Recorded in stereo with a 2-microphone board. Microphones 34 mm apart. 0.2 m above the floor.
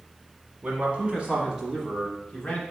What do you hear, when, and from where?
0.6 s a man speaking: 40° right (ahead or behind), 1.5 m; by 2.6 s 25° left (ahead or behind), 1.1 m